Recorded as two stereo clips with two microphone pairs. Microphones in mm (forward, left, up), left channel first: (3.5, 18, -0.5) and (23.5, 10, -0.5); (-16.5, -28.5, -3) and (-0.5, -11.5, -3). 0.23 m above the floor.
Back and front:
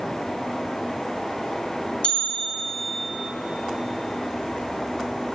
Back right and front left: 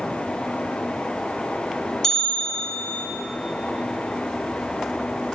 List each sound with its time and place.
2.0 s a bell: 160° left, 1.7 m